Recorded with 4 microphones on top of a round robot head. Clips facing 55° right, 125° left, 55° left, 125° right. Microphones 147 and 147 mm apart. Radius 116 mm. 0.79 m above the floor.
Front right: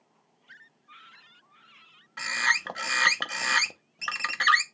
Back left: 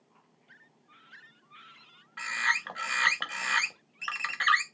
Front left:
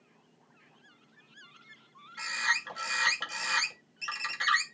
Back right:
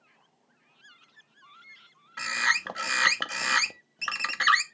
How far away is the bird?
About 0.7 m.